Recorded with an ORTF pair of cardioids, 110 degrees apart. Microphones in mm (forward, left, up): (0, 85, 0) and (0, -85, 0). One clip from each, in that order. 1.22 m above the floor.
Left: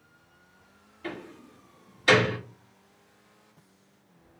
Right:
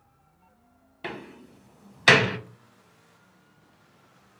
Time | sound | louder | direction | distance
1.0 | a door slam | right 2 dB | 65° right | 0.8 m